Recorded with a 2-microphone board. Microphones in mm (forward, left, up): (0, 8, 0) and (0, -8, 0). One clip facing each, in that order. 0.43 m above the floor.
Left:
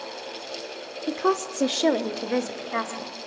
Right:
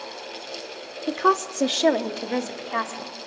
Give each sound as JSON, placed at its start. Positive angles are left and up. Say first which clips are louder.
{"t": 1.1, "sound": "a woman speaking", "louder": "right 3 dB", "side_deg": -20, "distance_m": 0.7}